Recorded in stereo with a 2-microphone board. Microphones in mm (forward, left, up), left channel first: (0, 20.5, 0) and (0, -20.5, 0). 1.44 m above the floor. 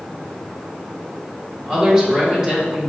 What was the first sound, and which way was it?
A woman speaking, 20° right (ahead or behind).